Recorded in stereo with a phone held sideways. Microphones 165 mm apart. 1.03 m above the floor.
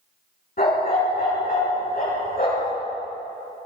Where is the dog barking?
65° left (ahead or behind), 5.5 m.